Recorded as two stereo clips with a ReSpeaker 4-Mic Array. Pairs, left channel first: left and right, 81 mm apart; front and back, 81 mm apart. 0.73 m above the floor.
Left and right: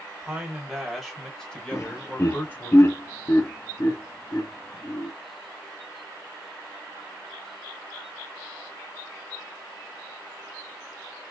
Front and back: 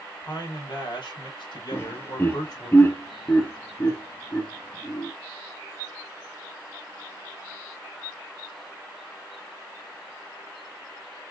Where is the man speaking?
10° right, 3 m; by 2.7 s 30° left, 2.5 m.